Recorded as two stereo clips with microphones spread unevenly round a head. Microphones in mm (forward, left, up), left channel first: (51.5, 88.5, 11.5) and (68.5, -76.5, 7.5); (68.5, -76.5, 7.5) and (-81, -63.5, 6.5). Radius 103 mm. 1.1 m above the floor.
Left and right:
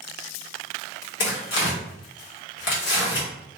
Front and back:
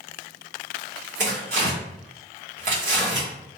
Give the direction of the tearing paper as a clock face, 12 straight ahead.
8 o'clock.